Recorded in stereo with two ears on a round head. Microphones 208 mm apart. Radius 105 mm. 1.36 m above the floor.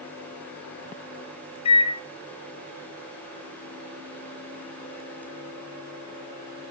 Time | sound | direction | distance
1.6 | a microwave | 25° left (ahead or behind) | 0.7 m